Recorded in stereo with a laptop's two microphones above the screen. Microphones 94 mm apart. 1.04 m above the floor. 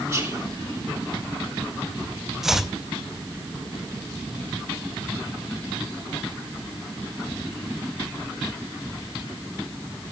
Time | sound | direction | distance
0.1 | whispering | 25° right (ahead or behind) | 0.7 m
2.4 | chopping | 5° right (ahead or behind) | 0.6 m